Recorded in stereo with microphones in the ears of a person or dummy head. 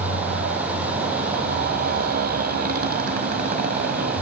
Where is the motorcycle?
45° right (ahead or behind).